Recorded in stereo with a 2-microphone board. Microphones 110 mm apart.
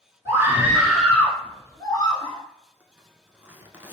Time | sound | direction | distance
0.2 | a scream | 25° right (ahead or behind) | 1.4 m
2.8 | a zipper | 15° right (ahead or behind) | 0.7 m